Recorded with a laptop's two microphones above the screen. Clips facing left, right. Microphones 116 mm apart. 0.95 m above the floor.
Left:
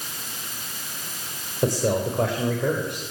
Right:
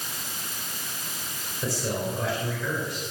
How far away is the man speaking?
About 4.5 m.